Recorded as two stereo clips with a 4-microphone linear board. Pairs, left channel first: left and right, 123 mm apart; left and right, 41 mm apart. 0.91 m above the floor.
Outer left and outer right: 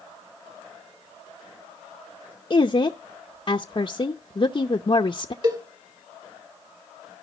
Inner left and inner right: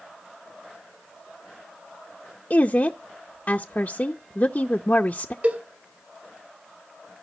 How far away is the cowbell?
About 1.8 m.